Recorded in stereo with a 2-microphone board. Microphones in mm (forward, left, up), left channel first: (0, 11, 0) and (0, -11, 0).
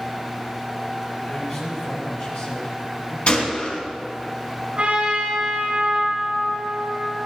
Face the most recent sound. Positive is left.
turn(degrees=-50)  # may be behind; listen again after turning